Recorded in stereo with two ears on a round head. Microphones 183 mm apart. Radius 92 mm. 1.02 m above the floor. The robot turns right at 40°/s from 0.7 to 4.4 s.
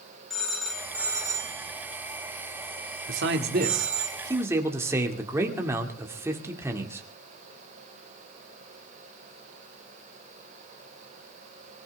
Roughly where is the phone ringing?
Centre.